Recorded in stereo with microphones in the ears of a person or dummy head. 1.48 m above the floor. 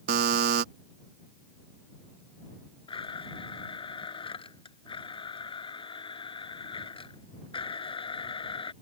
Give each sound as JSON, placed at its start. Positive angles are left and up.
{"t": 0.1, "sound": "a buzzer", "side_deg": -55}
{"t": 2.9, "sound": "a blender", "side_deg": 30}